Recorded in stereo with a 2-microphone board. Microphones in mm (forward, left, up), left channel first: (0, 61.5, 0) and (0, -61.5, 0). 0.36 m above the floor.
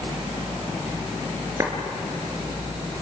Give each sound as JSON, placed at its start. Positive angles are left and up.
{"t": 1.6, "sound": "a clap", "side_deg": -25, "distance_m": 3.5}